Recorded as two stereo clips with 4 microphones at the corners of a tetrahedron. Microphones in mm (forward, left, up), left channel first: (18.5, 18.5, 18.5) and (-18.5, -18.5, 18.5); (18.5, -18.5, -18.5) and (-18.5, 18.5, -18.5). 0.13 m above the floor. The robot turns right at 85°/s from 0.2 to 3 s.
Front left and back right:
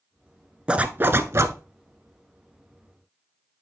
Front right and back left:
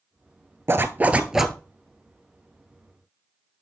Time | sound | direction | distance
0.7 | a zipper | 155° left | 0.6 m